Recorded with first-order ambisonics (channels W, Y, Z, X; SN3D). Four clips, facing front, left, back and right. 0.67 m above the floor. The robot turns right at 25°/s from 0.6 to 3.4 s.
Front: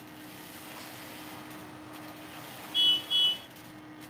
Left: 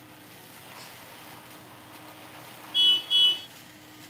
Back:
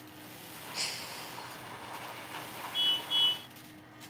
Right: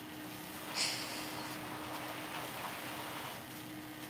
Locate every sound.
0.7 s breaking glass: 140° right; by 1.6 s 120° right
2.7 s a car horn: 70° left; by 3.5 s 90° left